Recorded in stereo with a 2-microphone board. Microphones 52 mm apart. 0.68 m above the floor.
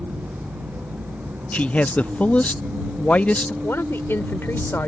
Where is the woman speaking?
50° left (ahead or behind).